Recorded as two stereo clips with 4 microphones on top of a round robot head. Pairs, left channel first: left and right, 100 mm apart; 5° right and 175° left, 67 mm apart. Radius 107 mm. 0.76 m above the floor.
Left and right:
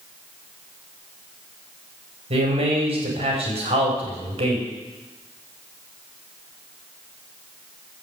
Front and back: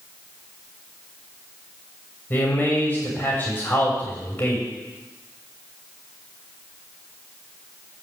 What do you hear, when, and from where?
2.3 s a man speaking: 70° right, 3.5 m